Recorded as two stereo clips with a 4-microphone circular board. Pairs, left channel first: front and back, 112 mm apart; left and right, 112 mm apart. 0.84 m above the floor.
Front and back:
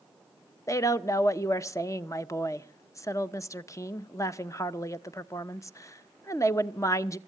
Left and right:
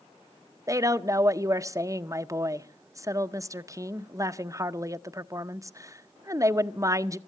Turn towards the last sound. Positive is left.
turn(degrees=-45)